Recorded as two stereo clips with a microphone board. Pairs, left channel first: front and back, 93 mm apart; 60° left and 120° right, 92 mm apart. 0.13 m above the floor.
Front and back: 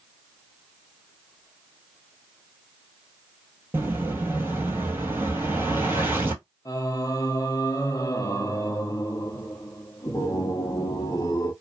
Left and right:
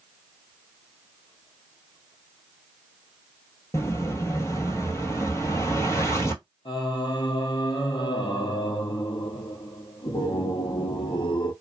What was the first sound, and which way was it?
An explosion, 115° left.